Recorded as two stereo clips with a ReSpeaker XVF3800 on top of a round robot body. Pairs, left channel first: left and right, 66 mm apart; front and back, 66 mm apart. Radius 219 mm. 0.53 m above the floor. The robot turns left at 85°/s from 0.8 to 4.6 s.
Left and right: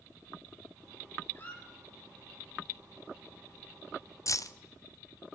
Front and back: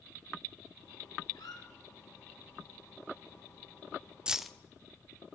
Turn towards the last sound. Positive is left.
turn(degrees=80)